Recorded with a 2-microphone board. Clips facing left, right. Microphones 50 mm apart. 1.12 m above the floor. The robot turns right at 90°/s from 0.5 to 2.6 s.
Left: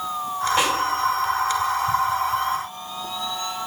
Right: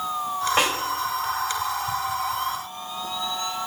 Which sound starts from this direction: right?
A snare drum, at 0.6 s.